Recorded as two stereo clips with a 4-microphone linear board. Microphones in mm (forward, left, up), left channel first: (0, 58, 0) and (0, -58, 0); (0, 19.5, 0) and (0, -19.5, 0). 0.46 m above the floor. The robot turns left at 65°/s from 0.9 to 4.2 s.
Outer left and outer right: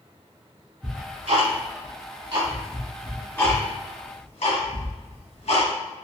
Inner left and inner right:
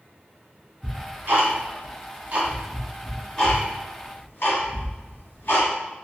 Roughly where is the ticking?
Right.